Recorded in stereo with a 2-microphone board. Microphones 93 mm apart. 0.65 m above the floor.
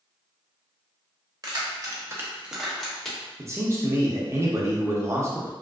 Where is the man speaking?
30° right (ahead or behind), 0.6 m.